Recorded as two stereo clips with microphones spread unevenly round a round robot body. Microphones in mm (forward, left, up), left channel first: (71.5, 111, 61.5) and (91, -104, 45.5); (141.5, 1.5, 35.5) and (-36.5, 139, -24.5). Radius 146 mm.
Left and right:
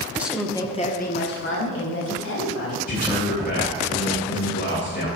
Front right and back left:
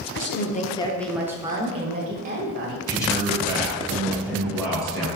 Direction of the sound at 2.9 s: 45° left.